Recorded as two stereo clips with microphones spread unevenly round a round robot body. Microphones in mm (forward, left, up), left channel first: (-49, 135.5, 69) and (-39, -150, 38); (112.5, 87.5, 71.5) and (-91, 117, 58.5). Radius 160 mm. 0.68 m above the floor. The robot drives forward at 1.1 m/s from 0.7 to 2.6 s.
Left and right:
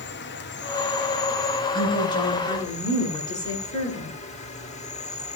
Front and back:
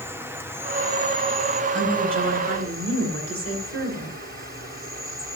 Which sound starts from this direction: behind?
A woman speaking, at 1.7 s.